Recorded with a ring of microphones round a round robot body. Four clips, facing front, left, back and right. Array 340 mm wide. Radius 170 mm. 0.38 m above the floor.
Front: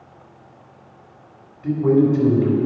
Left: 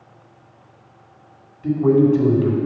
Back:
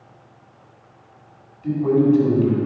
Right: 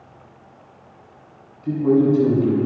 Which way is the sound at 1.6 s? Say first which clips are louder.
Left 2 dB, front 1 dB; 75° left.